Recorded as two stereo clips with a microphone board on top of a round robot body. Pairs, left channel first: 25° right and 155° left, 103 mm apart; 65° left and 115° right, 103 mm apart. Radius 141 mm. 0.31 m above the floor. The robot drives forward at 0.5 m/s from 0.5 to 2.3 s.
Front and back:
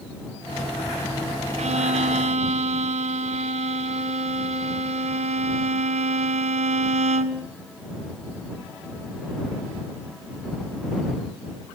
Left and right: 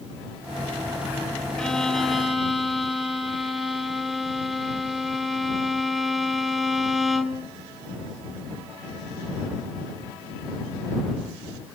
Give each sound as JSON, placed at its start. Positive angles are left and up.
{"t": 1.6, "sound": "a violin", "azimuth_deg": 150, "distance_m": 0.8}